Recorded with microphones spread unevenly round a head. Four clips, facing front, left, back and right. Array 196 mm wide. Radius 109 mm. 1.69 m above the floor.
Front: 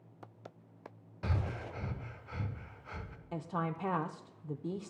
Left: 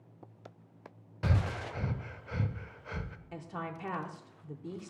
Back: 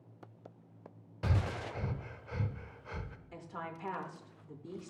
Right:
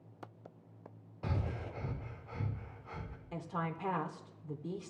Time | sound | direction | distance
1.2 | breathing | 105° left | 0.9 m
3.3 | a woman speaking | 5° right | 0.7 m